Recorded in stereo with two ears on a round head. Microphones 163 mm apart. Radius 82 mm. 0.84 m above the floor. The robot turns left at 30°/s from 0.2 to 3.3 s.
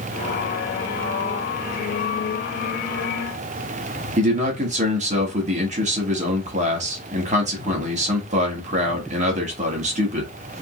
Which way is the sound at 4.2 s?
40° right (ahead or behind).